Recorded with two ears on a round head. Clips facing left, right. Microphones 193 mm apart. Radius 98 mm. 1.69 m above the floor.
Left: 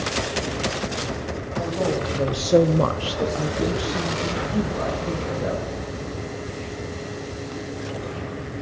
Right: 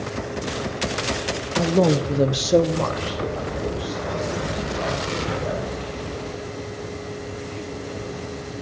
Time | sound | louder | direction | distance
1.6 | a man speaking | right 6 dB | 55° right (ahead or behind) | 1.2 m